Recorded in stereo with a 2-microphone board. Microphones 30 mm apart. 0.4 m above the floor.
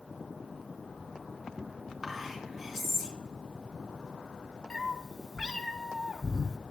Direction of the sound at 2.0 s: 5° left (ahead or behind).